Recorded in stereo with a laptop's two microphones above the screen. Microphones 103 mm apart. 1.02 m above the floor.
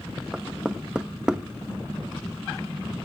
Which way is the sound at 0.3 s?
10° right (ahead or behind).